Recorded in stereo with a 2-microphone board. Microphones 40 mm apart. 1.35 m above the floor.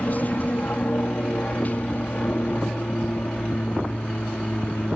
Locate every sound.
0.0 s an aircraft: 45° left (ahead or behind); by 5.0 s 40° left (ahead or behind)